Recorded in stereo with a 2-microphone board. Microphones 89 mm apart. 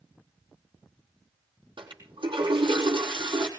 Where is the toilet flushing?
75° right (ahead or behind), 4.5 m.